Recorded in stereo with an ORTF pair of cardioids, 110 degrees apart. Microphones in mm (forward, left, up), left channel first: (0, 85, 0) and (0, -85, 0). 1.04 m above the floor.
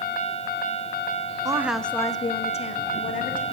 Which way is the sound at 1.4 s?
20° right.